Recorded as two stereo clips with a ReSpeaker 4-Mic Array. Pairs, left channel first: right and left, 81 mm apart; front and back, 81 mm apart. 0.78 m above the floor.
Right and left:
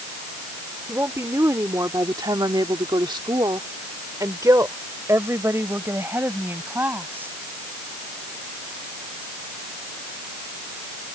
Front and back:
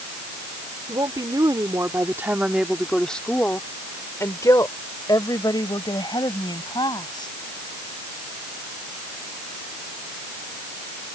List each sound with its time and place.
0.9 s a woman speaking: 150° left; by 7.3 s 25° left